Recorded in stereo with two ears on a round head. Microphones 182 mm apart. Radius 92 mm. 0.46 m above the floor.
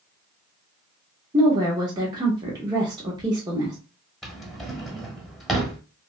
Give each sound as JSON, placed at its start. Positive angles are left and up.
{"t": 1.3, "sound": "a woman speaking", "side_deg": -20, "distance_m": 0.7}
{"t": 4.2, "sound": "a drawer", "side_deg": 0, "distance_m": 0.9}